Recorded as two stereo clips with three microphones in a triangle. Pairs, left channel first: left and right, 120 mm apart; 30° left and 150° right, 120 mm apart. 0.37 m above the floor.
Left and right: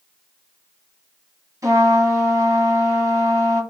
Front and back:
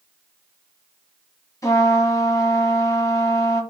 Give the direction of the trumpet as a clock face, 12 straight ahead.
1 o'clock.